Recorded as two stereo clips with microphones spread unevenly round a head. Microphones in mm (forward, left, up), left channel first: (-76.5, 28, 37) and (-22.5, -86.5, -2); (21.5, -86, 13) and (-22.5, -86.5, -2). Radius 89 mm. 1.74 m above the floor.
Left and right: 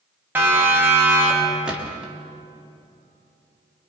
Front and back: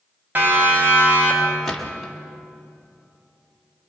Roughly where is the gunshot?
Ahead left.